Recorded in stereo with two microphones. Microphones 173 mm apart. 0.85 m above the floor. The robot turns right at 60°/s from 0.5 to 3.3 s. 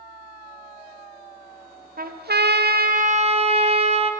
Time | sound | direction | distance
2.0 | a trumpet | 120° right | 0.5 m